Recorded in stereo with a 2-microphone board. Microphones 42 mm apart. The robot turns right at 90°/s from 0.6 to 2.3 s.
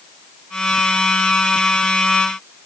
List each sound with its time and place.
Only background noise.